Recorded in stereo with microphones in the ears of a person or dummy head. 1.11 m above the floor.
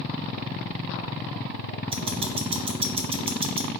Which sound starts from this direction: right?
Ticking, at 1.9 s.